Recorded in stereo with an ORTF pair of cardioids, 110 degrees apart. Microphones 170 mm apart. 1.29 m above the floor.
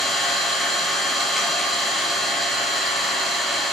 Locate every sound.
0.0 s an engine running: straight ahead, 0.9 m